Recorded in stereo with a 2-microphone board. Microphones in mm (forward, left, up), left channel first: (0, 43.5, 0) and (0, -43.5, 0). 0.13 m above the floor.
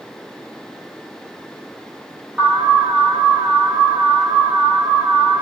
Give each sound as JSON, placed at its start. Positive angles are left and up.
{"t": 2.4, "sound": "an alarm", "side_deg": -15, "distance_m": 6.0}